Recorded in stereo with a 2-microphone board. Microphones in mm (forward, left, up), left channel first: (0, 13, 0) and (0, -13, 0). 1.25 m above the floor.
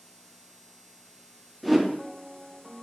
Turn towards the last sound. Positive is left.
turn(degrees=0)  # may be behind; listen again after turning